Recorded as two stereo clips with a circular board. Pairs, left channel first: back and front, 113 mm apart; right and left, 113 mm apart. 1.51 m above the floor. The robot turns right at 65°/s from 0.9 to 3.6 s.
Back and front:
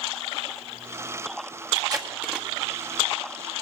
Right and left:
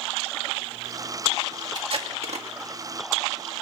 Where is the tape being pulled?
40° left, 1.8 m; by 2.5 s 90° left, 1.8 m.